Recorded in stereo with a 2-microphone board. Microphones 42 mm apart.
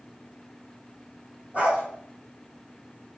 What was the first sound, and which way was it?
A dog barking, 30° right (ahead or behind).